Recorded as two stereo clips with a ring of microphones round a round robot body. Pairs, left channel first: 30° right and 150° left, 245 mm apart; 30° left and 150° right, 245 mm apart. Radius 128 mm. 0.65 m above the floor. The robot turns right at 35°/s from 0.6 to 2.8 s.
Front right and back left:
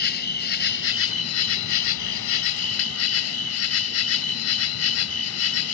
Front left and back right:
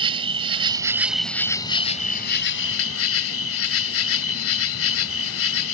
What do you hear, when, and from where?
0.0 s an insect: 80° right; by 5.7 s 5° right